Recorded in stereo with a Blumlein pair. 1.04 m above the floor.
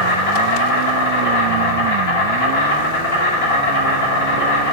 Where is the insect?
55° left, 1.5 m.